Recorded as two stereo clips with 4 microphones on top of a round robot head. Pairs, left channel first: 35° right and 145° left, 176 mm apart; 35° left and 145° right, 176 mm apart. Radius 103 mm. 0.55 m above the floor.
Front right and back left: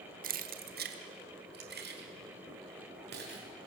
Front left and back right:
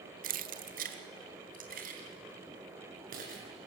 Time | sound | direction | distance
0.2 | keys jangling | straight behind | 1.0 m